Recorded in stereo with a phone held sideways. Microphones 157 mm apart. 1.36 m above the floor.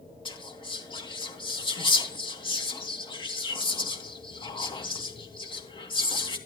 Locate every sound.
0.2 s whispering: 30° left (ahead or behind), 3 m